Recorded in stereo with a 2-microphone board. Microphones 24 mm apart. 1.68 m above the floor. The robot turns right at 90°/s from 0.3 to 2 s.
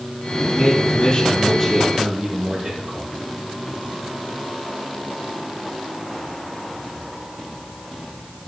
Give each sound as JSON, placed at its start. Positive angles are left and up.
{"t": 0.4, "sound": "a man speaking", "azimuth_deg": 85, "distance_m": 6.0}